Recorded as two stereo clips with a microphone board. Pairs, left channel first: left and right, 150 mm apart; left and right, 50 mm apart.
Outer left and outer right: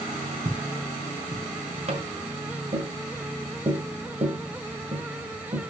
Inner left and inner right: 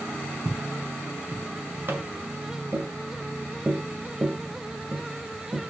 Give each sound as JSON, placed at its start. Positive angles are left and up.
{"t": 0.5, "sound": "footsteps", "side_deg": -70, "distance_m": 4.5}
{"t": 1.9, "sound": "tapping", "side_deg": -45, "distance_m": 1.9}